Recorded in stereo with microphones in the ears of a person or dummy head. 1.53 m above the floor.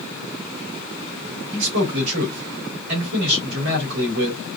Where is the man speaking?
75° right (ahead or behind), 2 m.